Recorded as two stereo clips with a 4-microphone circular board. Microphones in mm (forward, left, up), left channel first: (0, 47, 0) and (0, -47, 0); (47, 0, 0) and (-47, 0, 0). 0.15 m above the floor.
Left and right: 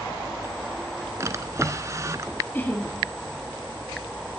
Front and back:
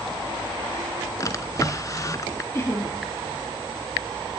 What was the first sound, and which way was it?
A drawer, 40° right.